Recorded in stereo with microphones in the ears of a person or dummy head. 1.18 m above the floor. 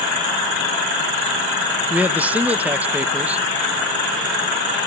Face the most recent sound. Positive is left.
turn(degrees=-10)  # may be behind; listen again after turning